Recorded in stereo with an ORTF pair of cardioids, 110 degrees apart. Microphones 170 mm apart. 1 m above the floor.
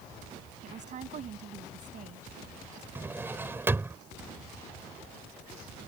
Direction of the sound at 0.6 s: 50° right.